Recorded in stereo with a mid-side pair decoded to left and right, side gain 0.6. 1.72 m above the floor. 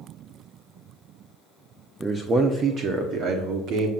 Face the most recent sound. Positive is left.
turn(degrees=-70)